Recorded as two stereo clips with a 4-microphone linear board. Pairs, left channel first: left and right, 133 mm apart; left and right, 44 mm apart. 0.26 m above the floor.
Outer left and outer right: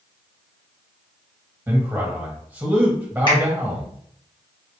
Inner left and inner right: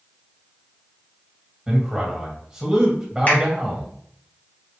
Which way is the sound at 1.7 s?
15° right (ahead or behind).